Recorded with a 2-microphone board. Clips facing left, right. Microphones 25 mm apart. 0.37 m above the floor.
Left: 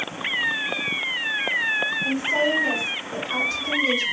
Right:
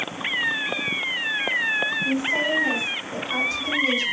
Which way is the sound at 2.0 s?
35° left (ahead or behind).